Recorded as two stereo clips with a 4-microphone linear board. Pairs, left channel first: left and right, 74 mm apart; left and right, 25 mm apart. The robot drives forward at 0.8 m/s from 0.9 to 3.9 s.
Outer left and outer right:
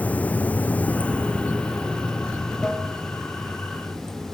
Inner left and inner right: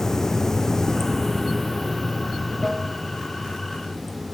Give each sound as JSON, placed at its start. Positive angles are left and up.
{"t": 0.0, "sound": "running water", "side_deg": 20, "distance_m": 0.7}